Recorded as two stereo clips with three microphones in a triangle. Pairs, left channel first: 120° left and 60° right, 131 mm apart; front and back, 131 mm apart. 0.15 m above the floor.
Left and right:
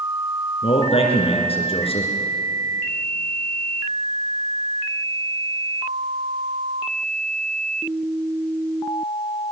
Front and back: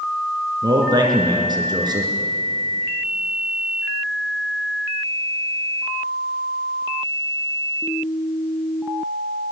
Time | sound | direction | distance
0.6 | a man speaking | 135° left | 2.5 m